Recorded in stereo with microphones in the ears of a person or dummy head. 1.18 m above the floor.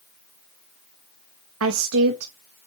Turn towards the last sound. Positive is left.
turn(degrees=-80)